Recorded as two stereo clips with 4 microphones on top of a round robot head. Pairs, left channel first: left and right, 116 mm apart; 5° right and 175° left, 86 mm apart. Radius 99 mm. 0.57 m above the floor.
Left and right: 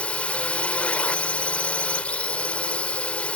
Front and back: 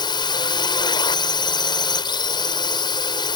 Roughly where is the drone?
Ahead.